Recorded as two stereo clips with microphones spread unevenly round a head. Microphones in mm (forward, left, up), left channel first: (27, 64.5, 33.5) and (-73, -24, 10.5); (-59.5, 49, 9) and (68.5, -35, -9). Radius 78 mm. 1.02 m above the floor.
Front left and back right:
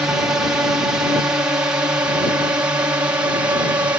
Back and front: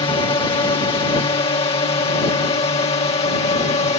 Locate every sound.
0.0 s a drone: 165° left; by 4.0 s 170° left